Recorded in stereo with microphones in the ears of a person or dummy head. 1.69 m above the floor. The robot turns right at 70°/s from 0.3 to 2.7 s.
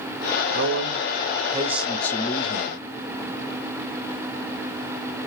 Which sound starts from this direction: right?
A man speaking, at 0.5 s.